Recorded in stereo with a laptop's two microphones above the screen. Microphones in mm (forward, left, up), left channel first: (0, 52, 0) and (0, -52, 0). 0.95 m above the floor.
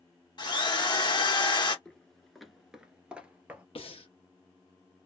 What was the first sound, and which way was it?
A drill, 50° left (ahead or behind).